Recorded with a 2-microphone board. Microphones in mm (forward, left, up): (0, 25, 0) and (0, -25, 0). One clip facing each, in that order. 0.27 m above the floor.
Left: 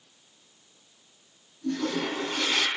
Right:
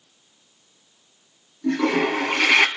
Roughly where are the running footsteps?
I don't hear running footsteps.